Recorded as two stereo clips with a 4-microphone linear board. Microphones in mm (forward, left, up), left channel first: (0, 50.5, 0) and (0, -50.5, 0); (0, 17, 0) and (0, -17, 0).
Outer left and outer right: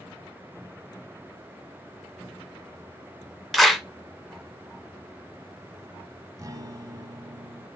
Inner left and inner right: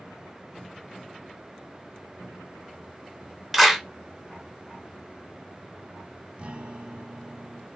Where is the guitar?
35° right (ahead or behind), 0.6 m.